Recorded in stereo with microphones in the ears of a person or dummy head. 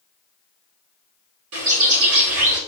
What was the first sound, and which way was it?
A bird, 65° right (ahead or behind).